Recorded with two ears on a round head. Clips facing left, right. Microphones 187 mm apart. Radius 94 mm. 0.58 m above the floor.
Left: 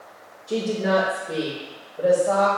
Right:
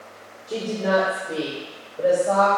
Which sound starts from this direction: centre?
A woman speaking, at 0.5 s.